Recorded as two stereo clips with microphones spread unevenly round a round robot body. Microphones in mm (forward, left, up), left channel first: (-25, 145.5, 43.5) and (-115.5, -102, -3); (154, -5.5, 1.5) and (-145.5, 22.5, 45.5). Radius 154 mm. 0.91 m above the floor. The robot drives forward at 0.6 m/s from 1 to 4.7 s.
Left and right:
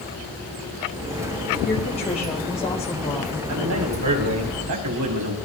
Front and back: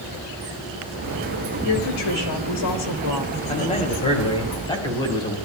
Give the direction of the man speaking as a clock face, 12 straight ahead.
2 o'clock.